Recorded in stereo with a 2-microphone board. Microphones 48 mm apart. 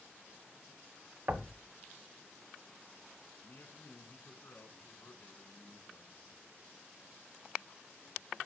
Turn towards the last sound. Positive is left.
turn(degrees=55)  # may be behind; listen again after turning